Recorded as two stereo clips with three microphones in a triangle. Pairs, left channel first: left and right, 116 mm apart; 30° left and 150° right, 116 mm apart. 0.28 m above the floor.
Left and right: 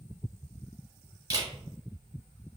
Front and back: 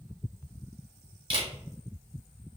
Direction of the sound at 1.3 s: 140° right.